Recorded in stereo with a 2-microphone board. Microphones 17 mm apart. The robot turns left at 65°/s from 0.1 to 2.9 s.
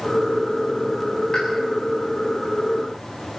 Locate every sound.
1.3 s a pop: 55° left (ahead or behind), 7.5 m; by 1.5 s 45° left (ahead or behind), 7.5 m